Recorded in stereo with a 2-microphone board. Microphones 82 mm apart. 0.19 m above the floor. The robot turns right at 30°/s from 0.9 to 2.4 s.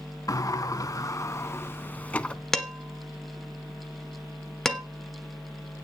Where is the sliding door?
120° left, 0.6 m; by 2.4 s 165° left, 0.6 m.